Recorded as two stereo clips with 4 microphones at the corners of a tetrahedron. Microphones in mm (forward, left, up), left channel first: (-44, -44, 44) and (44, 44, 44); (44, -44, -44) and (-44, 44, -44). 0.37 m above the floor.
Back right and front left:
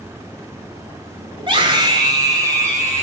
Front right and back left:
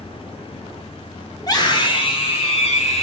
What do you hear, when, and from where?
1.4 s a scream: 10° left, 2.5 m; by 3.0 s 20° right, 4 m